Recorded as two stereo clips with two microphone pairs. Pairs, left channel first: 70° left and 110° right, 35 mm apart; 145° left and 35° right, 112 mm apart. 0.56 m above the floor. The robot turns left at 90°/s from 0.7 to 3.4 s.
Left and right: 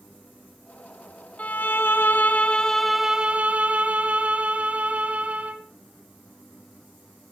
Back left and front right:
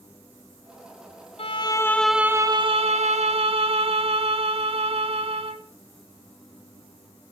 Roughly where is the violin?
Behind left.